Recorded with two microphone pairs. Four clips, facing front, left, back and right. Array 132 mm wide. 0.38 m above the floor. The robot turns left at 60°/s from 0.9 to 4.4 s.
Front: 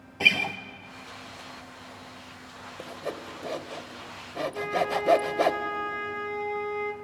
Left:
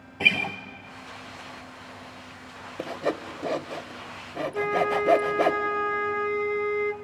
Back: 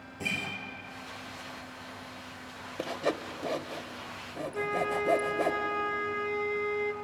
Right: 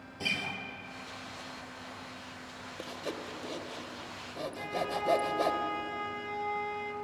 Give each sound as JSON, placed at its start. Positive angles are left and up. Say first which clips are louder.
{"t": 0.2, "sound": "a guitar", "louder": "left 9 dB, front 9 dB", "azimuth_deg": 35, "distance_m": 1.5}
{"t": 2.8, "sound": "sawing", "louder": "left 11 dB, back 5 dB", "azimuth_deg": 135, "distance_m": 0.8}
{"t": 4.5, "sound": "a flute", "louder": "left 11 dB, front 2 dB", "azimuth_deg": 95, "distance_m": 0.9}